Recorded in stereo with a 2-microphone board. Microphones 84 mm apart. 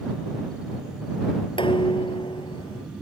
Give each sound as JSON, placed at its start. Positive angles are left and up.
{"t": 1.6, "sound": "dishes clattering", "side_deg": 75}